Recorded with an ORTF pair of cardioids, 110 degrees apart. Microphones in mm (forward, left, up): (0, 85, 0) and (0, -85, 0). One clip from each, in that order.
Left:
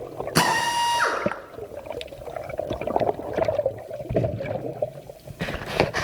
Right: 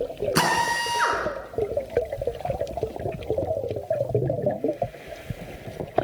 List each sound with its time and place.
0.3 s a drill: 10° left, 7.5 m